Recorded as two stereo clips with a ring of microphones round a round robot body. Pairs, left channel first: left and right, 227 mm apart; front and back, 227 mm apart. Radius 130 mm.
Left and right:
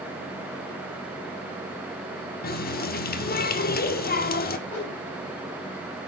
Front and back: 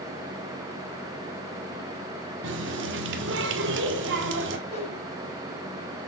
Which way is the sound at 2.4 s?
140° left.